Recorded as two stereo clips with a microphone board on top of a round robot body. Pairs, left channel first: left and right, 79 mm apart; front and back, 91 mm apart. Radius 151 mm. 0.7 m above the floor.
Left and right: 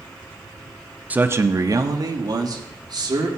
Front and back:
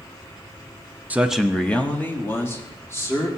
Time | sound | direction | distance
1.1 | a man speaking | 135° right | 0.7 m